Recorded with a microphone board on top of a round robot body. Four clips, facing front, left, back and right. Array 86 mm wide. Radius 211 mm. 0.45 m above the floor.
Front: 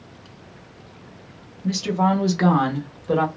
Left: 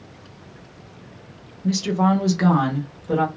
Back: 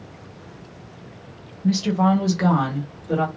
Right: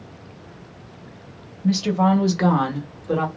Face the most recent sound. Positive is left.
turn(degrees=-15)